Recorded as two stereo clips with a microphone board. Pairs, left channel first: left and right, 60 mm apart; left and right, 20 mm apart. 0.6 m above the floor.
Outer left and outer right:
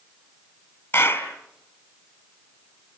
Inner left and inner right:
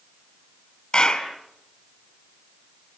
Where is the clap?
35° left (ahead or behind), 4 m.